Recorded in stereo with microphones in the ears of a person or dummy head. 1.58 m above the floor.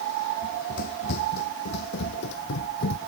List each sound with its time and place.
0.4 s running footsteps: 55° left (ahead or behind)